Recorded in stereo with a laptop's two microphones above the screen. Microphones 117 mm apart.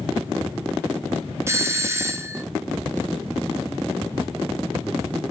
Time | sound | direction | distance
1.5 | a doorbell | 20° right (ahead or behind) | 0.6 m